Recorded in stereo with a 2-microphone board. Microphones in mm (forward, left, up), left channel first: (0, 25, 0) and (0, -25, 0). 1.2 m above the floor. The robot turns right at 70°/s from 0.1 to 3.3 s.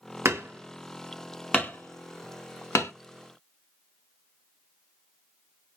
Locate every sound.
0.2 s hammering: 65° right (ahead or behind), 1.5 m; by 2.9 s 60° left (ahead or behind), 1.5 m